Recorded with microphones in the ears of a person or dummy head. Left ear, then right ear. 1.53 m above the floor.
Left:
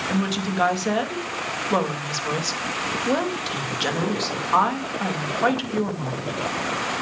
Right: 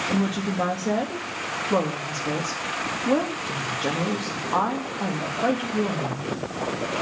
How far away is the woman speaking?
About 2 m.